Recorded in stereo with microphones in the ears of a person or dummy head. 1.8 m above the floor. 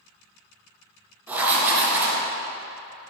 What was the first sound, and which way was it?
Writing, 15° right (ahead or behind).